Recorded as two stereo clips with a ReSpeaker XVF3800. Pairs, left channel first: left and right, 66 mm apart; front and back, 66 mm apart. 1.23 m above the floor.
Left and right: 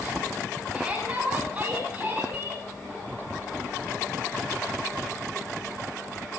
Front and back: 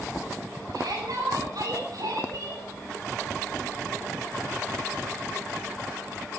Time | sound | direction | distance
0.7 | a shout | 165° right | 8.5 m